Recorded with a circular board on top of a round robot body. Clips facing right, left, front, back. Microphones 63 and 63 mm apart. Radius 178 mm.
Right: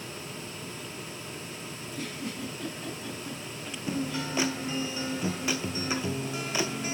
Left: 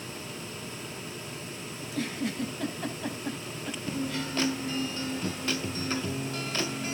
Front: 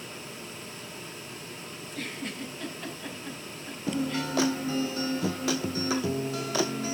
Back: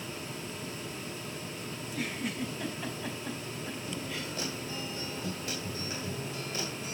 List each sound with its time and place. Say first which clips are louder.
1.8 s a giggle: left 6 dB, back 1 dB; 100° left, 4 m
3.9 s a guitar: right 2 dB, front 8 dB; 10° right, 0.6 m